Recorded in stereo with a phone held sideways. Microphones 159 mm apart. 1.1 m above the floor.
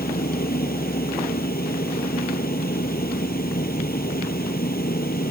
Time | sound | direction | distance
0.0 | a fan | 70° left (ahead or behind) | ?